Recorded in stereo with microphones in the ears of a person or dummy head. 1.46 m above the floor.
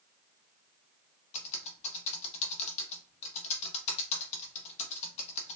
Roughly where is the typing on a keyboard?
Left.